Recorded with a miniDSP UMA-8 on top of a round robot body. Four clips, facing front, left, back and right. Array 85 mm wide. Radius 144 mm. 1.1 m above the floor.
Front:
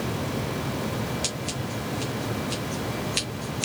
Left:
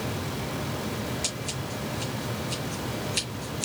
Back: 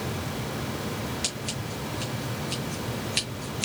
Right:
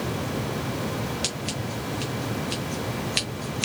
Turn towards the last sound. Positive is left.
turn(degrees=-85)